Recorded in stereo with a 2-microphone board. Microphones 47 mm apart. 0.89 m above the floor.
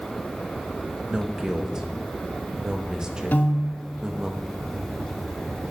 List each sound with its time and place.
1.1 s a man speaking: 15° right (ahead or behind), 1.0 m
3.3 s a piano: 45° left (ahead or behind), 1.1 m